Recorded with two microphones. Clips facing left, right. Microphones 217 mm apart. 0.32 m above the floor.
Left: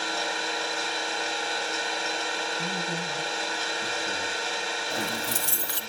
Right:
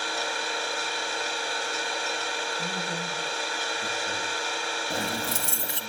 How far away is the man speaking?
About 6 m.